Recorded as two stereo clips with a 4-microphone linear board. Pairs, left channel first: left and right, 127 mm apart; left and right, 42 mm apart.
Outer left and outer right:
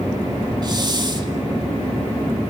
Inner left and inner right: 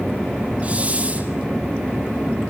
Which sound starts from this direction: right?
A hiss, at 0.6 s.